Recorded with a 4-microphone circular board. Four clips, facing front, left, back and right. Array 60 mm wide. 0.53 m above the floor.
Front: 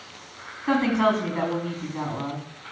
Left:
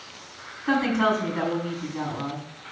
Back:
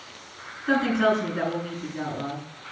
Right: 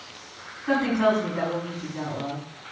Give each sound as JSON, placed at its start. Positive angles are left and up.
{"t": 0.7, "sound": "a woman speaking", "azimuth_deg": 15, "distance_m": 5.0}